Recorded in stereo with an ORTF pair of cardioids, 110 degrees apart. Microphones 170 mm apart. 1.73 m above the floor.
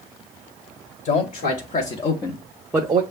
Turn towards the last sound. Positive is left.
turn(degrees=-35)